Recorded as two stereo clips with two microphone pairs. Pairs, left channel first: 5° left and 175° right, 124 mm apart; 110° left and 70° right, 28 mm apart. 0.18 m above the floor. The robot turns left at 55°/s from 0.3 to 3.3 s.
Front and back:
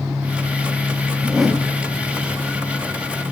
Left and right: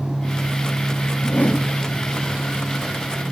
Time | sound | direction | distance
1.2 | a whoosh | 105° left | 3 m